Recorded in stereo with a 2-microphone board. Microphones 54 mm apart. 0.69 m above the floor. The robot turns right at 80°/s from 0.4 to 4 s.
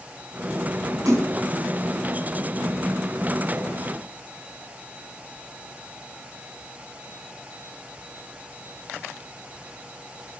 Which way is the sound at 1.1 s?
80° right.